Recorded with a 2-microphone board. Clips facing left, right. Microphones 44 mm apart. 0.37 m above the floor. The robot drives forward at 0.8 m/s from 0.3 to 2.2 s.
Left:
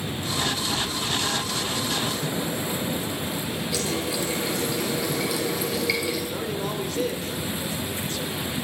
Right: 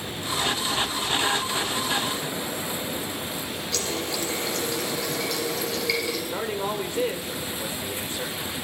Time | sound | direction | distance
3.7 | a running tap | 10° left (ahead or behind) | 4 m
6.3 | a man speaking | 20° right (ahead or behind) | 1.0 m